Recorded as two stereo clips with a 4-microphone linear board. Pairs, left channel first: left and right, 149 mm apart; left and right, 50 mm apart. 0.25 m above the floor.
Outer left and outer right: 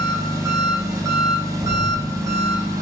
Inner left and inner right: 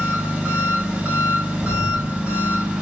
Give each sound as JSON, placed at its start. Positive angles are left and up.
{"t": 0.0, "sound": "an engine running", "side_deg": -25, "distance_m": 0.8}
{"t": 1.6, "sound": "an explosion", "side_deg": -45, "distance_m": 1.2}